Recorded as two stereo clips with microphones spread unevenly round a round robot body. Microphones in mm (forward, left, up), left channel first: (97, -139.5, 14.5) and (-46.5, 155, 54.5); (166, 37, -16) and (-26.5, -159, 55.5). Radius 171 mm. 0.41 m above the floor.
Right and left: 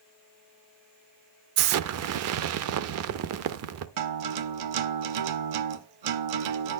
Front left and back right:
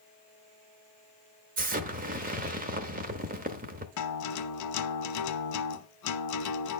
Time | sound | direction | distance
1.6 | an explosion | 155° left | 0.6 m
4.0 | a guitar | 80° left | 0.8 m